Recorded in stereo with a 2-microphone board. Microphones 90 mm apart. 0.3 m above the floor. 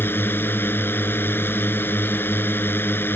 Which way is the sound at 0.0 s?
25° left (ahead or behind).